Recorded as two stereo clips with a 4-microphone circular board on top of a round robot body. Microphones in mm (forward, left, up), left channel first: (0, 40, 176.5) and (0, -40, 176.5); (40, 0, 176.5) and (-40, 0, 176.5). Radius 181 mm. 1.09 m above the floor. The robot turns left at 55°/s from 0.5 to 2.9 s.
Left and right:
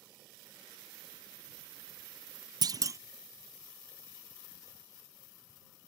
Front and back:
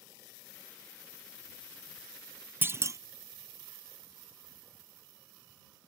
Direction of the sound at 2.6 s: 115° right.